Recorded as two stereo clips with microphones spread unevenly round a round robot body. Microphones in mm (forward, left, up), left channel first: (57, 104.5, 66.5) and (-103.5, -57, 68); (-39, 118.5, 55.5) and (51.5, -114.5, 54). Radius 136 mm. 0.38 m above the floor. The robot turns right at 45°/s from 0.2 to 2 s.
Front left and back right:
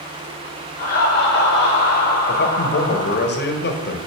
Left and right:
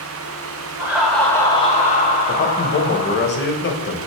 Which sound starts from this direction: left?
A man speaking, at 2.3 s.